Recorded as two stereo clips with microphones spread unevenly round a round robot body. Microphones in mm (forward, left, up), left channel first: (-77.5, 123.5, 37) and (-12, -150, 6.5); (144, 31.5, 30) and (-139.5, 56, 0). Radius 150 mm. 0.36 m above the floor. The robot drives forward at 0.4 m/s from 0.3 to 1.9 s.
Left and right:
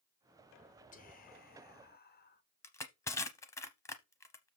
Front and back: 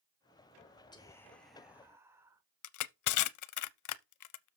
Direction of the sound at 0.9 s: 65° left.